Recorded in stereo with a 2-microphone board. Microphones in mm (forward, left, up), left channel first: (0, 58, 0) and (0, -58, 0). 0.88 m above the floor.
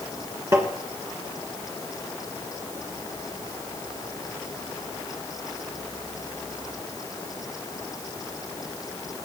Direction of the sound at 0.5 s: 25° right (ahead or behind).